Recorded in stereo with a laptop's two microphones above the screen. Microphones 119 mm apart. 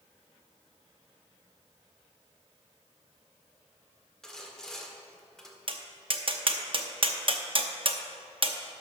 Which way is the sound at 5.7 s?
45° right (ahead or behind).